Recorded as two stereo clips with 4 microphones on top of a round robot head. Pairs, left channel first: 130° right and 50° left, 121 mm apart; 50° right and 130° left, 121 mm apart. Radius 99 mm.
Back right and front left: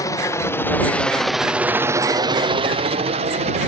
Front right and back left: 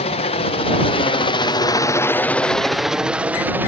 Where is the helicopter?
70° right; by 3.7 s 60° left.